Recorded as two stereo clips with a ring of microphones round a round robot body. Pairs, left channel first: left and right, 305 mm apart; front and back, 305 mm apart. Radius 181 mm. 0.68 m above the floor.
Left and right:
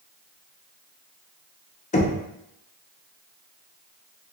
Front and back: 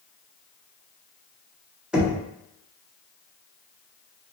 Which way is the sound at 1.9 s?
100° left.